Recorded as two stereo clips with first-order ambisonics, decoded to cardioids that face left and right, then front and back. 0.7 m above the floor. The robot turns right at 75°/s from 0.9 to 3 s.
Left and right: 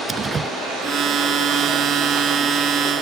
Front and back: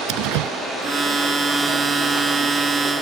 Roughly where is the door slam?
Behind.